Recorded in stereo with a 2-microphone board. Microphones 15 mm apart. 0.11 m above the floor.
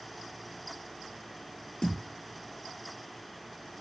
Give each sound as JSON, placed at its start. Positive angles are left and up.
{"t": 1.8, "sound": "a thud", "side_deg": 55, "distance_m": 0.7}